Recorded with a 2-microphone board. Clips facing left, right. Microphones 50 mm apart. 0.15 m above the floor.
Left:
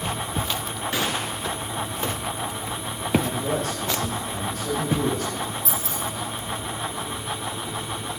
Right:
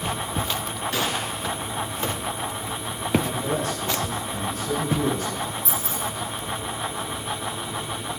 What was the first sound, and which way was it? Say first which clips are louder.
A gunshot: left 1 dB; 10° left (ahead or behind).